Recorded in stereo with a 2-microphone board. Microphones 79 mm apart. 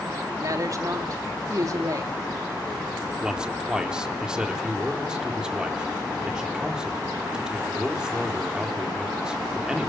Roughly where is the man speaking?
Centre.